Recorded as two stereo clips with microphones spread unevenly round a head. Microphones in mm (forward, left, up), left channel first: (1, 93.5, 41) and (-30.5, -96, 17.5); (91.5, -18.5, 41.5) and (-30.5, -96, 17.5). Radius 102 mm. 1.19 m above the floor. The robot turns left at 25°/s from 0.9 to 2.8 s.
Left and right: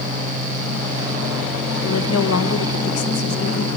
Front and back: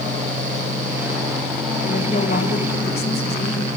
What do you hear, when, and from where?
1.8 s a woman speaking: 95° left, 1.4 m; by 3.7 s 70° left, 1.4 m